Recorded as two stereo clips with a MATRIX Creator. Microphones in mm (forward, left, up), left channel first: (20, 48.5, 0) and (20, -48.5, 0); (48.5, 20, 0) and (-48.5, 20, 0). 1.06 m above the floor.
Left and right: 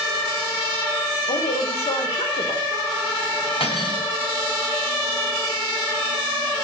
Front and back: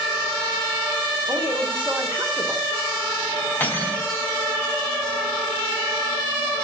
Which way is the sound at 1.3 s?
105° left.